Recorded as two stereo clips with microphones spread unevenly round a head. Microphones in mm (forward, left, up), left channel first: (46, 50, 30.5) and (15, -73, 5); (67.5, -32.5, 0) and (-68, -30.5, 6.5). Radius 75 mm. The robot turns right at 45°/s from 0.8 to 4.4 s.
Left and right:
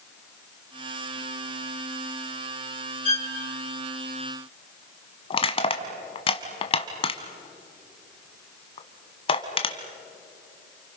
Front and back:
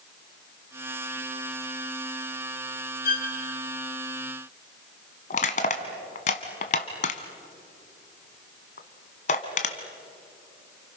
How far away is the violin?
About 3.5 m.